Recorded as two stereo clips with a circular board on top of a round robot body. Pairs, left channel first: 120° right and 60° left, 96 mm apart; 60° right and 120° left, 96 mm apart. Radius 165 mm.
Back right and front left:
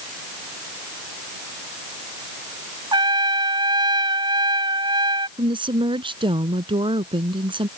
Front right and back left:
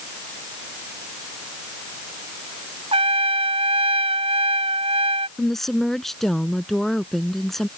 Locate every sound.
2.9 s a trumpet: 100° left
5.4 s a woman speaking: 25° left